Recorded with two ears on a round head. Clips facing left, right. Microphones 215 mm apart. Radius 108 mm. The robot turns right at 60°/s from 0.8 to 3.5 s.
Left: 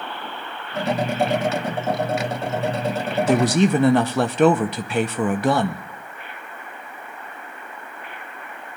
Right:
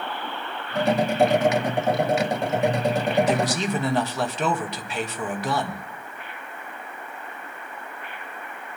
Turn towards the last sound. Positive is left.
turn(degrees=45)  # may be behind; listen again after turning